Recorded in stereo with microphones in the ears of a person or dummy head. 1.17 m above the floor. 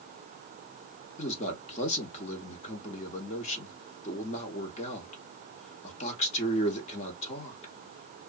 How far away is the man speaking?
About 0.9 m.